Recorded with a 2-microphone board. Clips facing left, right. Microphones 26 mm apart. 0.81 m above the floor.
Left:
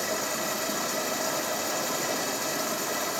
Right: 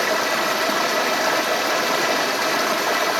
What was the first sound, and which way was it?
Running water, 65° right (ahead or behind).